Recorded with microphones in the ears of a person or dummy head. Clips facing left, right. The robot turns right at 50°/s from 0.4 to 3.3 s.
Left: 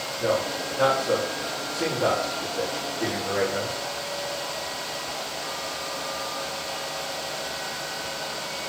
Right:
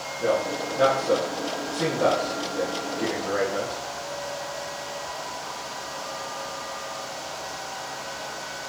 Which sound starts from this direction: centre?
A man speaking, at 0.2 s.